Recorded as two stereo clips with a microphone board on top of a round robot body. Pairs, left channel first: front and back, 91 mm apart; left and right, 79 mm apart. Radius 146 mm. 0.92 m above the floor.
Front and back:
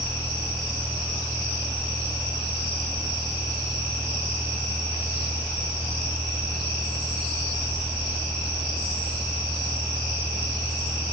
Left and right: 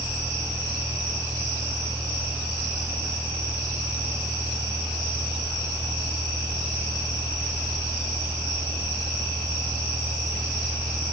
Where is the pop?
I don't hear a pop.